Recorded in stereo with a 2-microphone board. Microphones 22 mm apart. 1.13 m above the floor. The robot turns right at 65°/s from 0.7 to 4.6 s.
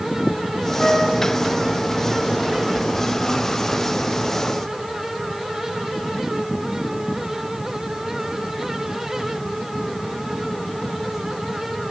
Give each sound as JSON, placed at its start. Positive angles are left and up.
{"t": 0.8, "sound": "a flute", "side_deg": 25, "distance_m": 8.5}